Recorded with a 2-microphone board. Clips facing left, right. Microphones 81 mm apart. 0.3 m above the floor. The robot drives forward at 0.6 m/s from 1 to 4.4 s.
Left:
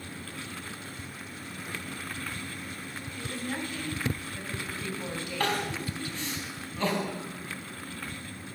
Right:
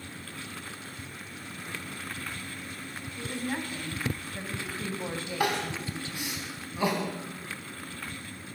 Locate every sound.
3.2 s a woman speaking: 20° right (ahead or behind), 3 m; by 6.4 s 25° right (ahead or behind), 2.5 m
5.4 s crying: 15° right (ahead or behind), 2.5 m